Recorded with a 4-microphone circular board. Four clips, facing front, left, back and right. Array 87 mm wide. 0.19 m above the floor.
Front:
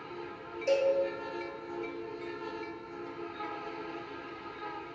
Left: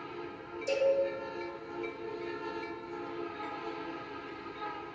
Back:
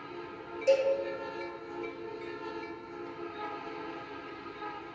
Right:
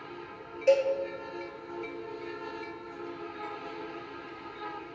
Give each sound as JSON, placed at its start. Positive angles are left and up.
{"t": 0.7, "sound": "a cowbell", "azimuth_deg": -95, "distance_m": 0.7}